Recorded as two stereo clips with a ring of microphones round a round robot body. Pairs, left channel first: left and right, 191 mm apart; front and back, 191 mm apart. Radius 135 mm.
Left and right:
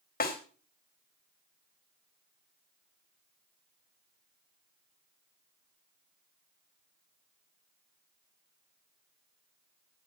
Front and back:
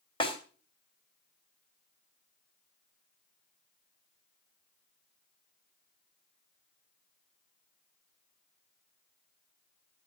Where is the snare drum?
60° left, 2.5 m.